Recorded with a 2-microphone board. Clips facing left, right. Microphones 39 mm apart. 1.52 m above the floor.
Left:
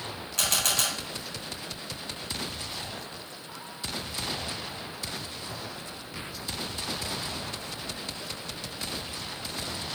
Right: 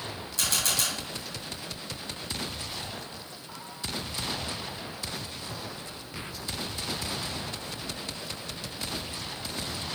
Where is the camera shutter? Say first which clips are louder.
Left 2 dB; 60° left (ahead or behind), 2.5 m.